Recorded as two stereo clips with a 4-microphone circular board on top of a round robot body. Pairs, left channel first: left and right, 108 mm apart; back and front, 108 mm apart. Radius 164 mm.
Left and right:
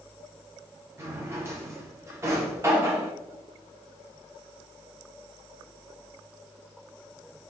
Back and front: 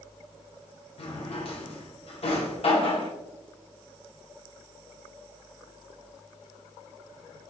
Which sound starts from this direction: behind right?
A drawer, at 1.0 s.